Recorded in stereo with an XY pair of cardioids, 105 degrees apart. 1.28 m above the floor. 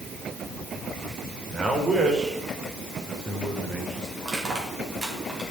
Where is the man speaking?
30° right, 4 m.